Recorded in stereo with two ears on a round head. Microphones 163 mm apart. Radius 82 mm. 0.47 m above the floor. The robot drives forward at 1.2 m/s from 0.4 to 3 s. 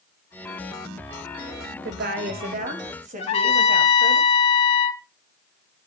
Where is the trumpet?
35° left (ahead or behind), 1.7 m.